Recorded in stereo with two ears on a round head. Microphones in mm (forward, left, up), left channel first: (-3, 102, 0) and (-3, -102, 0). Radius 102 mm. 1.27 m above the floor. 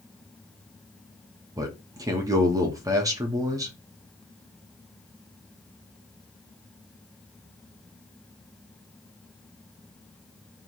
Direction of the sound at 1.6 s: 15° right (ahead or behind).